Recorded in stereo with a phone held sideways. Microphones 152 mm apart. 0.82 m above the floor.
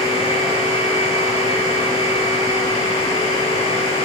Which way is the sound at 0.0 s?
40° left (ahead or behind).